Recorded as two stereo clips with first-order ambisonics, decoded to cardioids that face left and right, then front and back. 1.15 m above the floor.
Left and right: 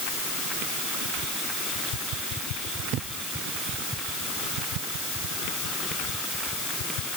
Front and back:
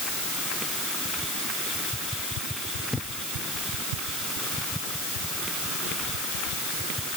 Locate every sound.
Only background noise.